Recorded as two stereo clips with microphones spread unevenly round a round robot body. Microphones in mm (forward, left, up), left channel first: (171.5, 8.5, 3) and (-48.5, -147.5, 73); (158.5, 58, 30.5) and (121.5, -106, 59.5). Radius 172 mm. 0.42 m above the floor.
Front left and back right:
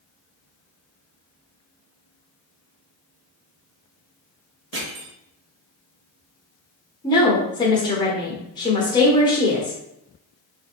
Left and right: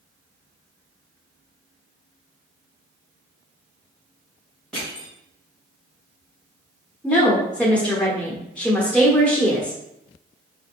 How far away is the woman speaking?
About 1.2 m.